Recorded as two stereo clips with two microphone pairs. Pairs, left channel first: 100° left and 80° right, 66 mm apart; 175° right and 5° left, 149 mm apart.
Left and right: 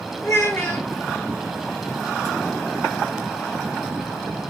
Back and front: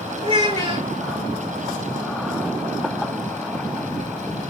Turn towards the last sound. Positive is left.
turn(degrees=50)